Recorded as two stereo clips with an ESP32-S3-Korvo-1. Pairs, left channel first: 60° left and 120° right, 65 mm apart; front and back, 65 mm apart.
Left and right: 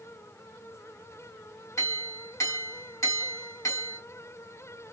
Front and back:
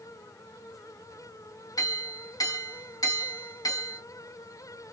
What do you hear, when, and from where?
1.8 s a clink: 15° left, 2.5 m